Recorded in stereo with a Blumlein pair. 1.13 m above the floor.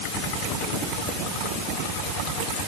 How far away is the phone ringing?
No phone ringing in this recording.